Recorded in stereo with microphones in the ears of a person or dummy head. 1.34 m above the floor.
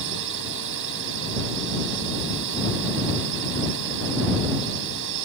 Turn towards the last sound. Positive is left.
turn(degrees=-65)  # may be behind; listen again after turning